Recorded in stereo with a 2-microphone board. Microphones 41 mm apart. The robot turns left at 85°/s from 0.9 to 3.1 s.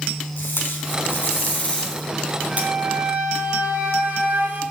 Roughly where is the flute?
Ahead.